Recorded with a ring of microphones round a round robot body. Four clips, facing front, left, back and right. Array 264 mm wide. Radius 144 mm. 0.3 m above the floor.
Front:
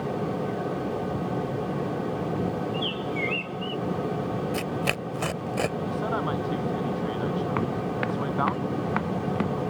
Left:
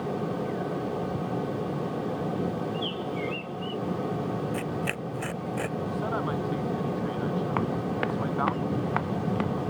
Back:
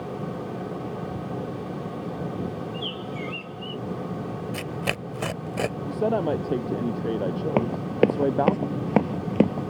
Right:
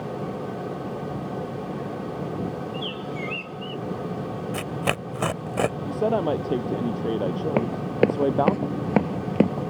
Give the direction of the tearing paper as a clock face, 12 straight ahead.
3 o'clock.